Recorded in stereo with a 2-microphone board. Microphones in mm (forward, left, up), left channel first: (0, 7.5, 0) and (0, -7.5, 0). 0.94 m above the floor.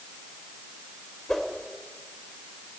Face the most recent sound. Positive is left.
turn(degrees=35)  # may be behind; listen again after turning